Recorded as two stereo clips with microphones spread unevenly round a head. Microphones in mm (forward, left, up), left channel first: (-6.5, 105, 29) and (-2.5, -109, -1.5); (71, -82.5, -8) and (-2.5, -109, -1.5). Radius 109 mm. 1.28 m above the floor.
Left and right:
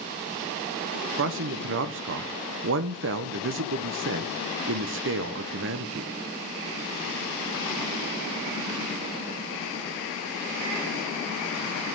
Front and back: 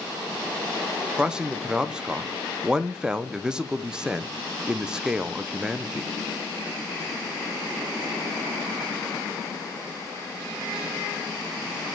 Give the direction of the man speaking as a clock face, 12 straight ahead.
3 o'clock.